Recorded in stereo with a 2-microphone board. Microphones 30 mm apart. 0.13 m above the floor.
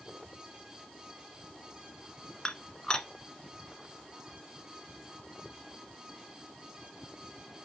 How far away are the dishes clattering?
About 1.1 m.